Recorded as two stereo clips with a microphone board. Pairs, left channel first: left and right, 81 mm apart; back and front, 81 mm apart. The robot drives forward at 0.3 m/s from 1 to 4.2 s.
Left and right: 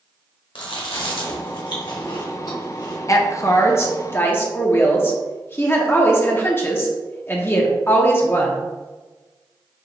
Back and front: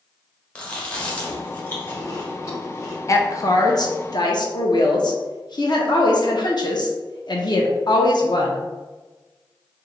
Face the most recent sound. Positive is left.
turn(degrees=150)